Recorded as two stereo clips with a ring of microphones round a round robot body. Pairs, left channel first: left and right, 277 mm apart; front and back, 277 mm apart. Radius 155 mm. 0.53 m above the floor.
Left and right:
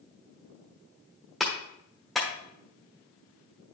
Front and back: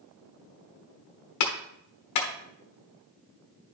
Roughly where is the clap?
Ahead.